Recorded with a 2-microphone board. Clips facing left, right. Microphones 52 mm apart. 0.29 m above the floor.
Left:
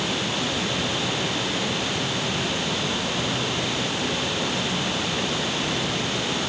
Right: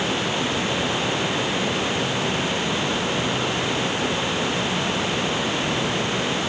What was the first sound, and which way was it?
Only background noise.